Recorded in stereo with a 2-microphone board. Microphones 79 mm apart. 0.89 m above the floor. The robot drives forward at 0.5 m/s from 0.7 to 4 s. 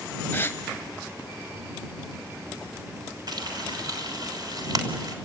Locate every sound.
0.3 s a gasp: 25° left (ahead or behind), 0.8 m
3.3 s frying: 55° right (ahead or behind), 3 m; by 5.2 s 50° right (ahead or behind), 3 m